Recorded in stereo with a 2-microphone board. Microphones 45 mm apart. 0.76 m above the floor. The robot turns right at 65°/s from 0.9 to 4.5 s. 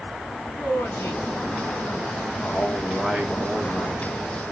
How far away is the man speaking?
About 1.4 m.